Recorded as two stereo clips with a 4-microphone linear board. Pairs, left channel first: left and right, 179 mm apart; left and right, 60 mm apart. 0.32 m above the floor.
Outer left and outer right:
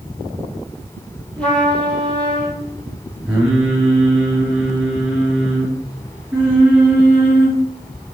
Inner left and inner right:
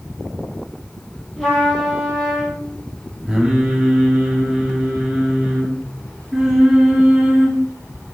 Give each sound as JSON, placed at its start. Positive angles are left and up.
{"t": 1.4, "sound": "a trumpet", "side_deg": 5, "distance_m": 4.5}
{"t": 3.3, "sound": "singing", "side_deg": -5, "distance_m": 3.5}